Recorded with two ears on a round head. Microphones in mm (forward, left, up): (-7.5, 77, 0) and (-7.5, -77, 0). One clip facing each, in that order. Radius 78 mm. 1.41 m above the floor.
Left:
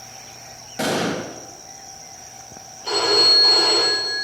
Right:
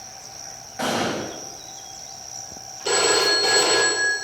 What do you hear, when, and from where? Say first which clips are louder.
0.8 s an explosion: left 2 dB; 40° left (ahead or behind), 1.9 m
2.9 s a phone ringing: right 1 dB; 55° right (ahead or behind), 4 m